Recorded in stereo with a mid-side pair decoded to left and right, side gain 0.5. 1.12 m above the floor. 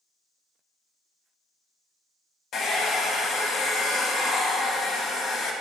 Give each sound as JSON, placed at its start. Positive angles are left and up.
{"t": 2.5, "sound": "a hair dryer", "azimuth_deg": 60, "distance_m": 0.6}